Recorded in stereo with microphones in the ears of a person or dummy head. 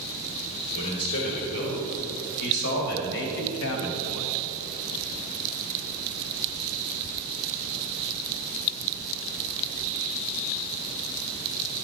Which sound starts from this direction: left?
A man speaking, at 0.8 s.